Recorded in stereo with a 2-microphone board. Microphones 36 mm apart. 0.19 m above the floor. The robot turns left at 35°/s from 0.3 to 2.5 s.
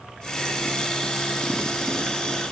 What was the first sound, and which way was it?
Only background noise.